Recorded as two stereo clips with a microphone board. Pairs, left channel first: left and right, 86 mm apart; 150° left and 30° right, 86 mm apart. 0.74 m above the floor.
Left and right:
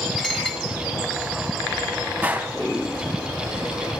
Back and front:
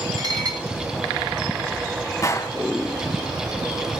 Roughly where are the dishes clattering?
Ahead.